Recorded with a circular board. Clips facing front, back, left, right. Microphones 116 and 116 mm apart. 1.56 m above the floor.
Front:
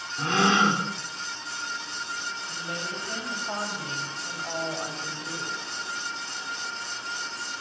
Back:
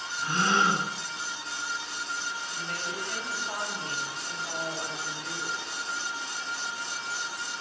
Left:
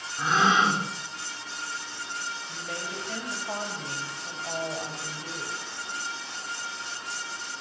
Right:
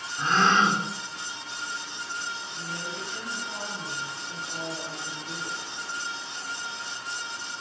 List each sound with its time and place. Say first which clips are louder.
0.2 s a gasp: front 4 dB, right 1 dB; 5° left, 5 m
2.5 s a woman speaking: front 1 dB, even; 65° left, 9 m